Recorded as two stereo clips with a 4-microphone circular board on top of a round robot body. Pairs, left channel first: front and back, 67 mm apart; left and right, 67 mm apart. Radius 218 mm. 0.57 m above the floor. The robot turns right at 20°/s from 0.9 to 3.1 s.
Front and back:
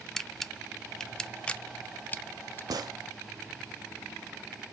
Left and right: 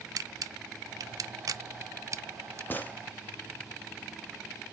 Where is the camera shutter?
85° right, 0.6 m; by 2.6 s 50° right, 0.6 m.